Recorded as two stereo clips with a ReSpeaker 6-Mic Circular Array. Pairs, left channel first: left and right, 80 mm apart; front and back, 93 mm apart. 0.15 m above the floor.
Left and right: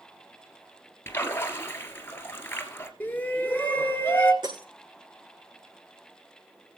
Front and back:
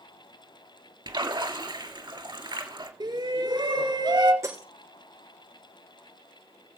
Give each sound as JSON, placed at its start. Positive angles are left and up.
{"t": 1.1, "sound": "a splash", "azimuth_deg": 150, "distance_m": 1.7}
{"t": 3.0, "sound": "a shout", "azimuth_deg": 155, "distance_m": 2.0}
{"t": 4.4, "sound": "breaking glass", "azimuth_deg": -120, "distance_m": 6.0}